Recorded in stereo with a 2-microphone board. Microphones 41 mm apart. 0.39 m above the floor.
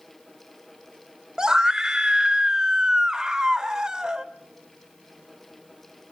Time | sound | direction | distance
1.4 | a scream | 20° right (ahead or behind) | 0.9 m